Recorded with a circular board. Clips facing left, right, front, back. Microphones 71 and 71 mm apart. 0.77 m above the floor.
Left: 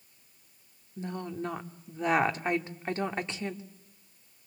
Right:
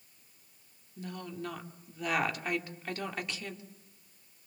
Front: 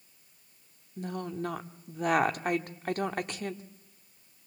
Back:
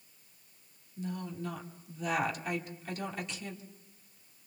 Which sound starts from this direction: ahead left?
A woman speaking, at 1.0 s.